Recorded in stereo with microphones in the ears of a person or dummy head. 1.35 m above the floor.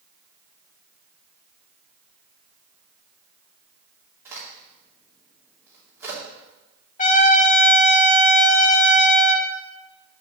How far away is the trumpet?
About 0.7 m.